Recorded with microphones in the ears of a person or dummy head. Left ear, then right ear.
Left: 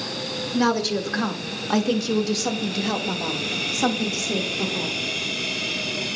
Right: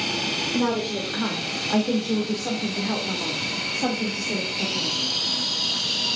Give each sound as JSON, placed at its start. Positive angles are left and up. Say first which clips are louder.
{"t": 0.5, "sound": "a woman speaking", "louder": "left 2 dB", "side_deg": 75, "distance_m": 2.0}